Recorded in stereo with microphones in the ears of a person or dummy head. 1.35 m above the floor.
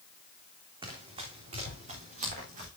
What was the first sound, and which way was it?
Running footsteps, 30° right (ahead or behind).